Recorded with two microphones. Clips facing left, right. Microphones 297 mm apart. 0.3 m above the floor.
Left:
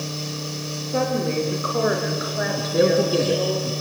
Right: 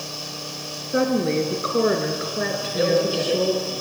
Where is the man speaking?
60° left (ahead or behind), 3.5 m.